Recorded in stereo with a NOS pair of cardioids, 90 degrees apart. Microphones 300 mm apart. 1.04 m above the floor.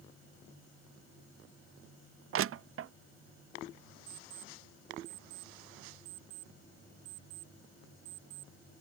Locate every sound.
2.3 s crushing: 45° right
4.1 s an alarm clock: 70° right